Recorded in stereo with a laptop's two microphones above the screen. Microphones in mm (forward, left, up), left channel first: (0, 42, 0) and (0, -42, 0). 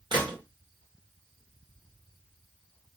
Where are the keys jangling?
I don't hear keys jangling.